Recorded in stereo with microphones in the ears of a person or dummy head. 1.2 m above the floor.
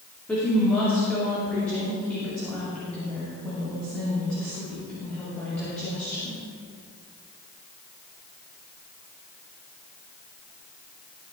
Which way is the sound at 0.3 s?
10° left (ahead or behind).